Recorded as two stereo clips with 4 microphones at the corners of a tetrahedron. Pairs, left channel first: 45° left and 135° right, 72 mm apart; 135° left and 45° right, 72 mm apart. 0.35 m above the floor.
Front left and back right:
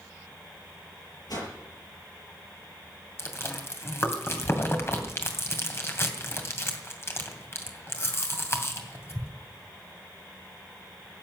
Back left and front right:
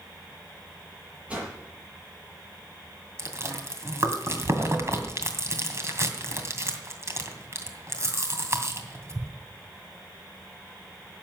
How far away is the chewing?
About 2.5 m.